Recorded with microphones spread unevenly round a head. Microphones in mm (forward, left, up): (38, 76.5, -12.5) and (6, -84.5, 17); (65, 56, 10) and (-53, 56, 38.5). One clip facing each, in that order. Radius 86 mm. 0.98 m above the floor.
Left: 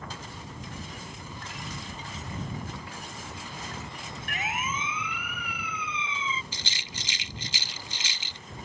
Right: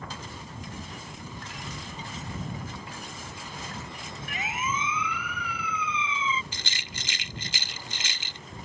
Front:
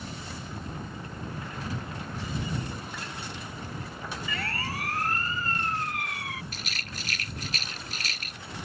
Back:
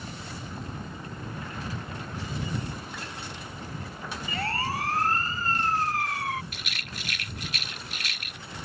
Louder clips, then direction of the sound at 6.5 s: Even, even; 70° right.